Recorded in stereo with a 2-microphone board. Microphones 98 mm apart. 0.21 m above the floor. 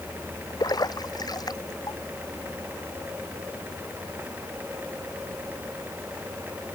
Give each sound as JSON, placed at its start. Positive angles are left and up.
{"t": 0.6, "sound": "a splash", "side_deg": 45}